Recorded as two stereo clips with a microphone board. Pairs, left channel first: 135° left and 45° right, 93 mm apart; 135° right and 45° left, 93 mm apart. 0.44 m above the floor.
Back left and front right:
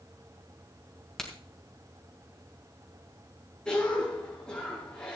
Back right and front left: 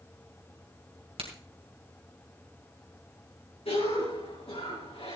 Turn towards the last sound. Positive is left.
turn(degrees=-145)